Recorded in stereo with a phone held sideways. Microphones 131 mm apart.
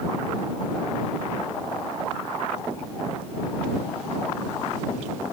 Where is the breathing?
No breathing in this recording.